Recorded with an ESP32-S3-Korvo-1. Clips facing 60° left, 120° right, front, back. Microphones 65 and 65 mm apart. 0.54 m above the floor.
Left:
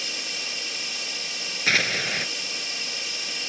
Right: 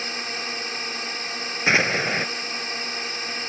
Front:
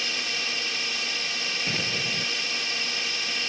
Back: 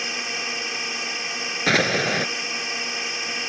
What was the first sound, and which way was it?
A drone, 125° right.